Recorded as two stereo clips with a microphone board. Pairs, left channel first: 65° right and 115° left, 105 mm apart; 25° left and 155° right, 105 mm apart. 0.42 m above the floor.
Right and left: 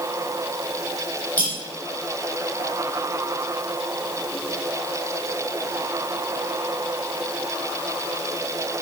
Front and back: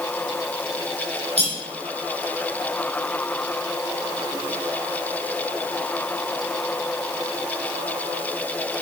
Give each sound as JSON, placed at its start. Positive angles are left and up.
{"t": 1.4, "sound": "cutlery clinking", "azimuth_deg": -140, "distance_m": 10.0}